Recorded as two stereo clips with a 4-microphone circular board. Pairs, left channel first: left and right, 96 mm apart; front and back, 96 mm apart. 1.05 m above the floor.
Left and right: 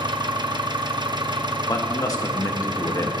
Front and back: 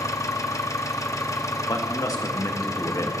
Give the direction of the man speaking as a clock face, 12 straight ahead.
10 o'clock.